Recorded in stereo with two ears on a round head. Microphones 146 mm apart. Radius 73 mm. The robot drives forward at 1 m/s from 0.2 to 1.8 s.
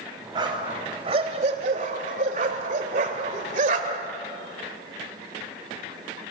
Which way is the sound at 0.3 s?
30° right (ahead or behind).